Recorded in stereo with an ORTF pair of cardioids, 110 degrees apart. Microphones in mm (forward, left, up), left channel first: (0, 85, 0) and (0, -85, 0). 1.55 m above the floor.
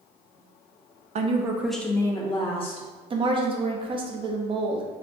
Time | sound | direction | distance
1.1 | a woman speaking | 40° right | 0.6 m
3.1 | a woman speaking | 30° right | 0.8 m